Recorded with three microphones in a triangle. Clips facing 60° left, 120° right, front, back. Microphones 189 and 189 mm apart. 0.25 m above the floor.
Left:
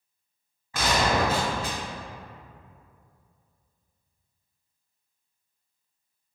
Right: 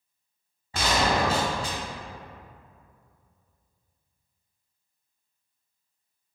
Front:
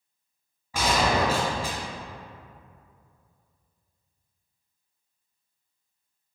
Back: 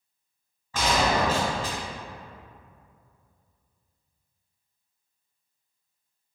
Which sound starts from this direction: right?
A gunshot, at 0.7 s.